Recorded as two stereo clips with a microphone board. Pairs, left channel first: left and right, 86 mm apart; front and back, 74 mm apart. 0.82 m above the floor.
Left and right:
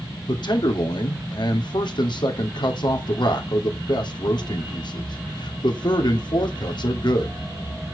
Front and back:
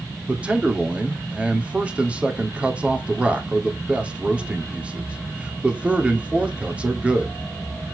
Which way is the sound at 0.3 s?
110° left.